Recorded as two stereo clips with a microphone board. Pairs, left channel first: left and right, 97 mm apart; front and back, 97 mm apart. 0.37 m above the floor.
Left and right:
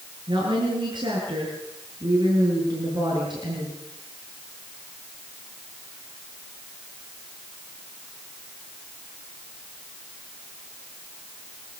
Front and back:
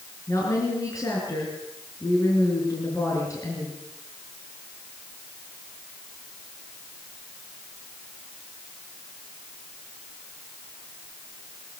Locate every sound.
0.3 s a woman speaking: 55° right, 6.5 m